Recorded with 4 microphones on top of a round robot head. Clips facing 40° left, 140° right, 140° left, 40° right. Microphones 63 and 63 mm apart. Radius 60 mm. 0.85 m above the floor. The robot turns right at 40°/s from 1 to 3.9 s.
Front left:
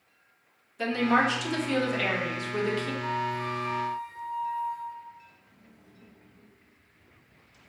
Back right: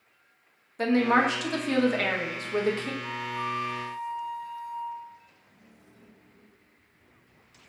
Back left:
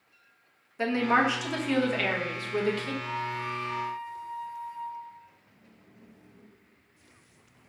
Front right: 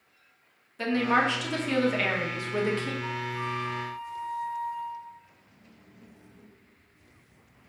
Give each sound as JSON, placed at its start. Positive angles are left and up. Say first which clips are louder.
{"t": 0.8, "sound": "a woman speaking", "louder": "back right 2 dB, even", "azimuth_deg": -160, "distance_m": 0.8}
{"t": 3.0, "sound": "a flute", "louder": "front left 2 dB, even", "azimuth_deg": 50, "distance_m": 0.8}